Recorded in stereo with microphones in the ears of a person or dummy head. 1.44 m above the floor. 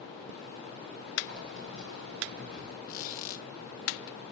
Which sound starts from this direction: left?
A squeak, at 2.9 s.